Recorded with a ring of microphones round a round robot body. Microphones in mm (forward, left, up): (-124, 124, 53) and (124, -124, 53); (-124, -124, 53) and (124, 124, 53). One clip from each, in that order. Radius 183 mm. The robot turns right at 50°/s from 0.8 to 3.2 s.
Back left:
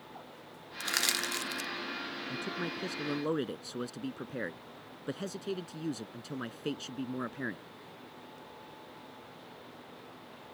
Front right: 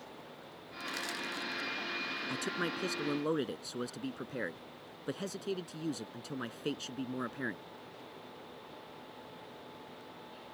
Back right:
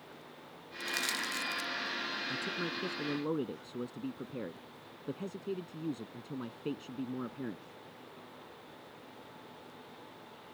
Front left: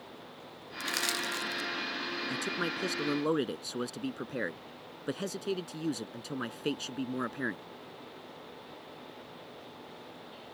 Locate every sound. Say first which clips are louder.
0.8 s crushing: back left 7 dB, front left 2 dB; 105° left; by 1.7 s 150° left
2.3 s a man speaking: front right 1 dB, front left 3 dB; 10° right; by 7.6 s 35° left